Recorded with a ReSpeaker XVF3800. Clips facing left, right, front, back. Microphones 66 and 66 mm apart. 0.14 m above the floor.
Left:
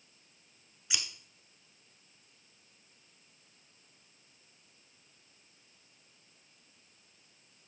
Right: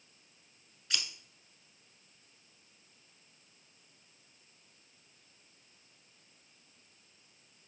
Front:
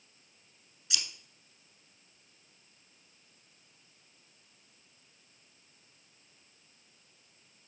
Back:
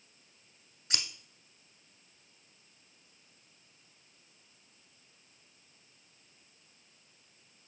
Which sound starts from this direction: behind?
Scissors, at 0.9 s.